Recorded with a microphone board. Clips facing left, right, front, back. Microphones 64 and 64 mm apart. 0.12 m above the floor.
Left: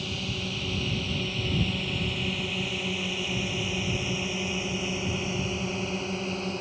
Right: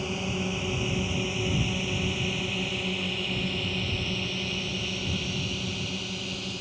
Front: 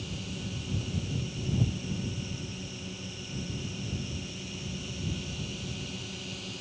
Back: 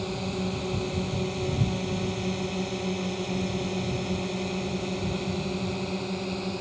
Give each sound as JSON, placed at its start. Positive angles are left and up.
{"t": 0.0, "sound": "a drone", "azimuth_deg": -155}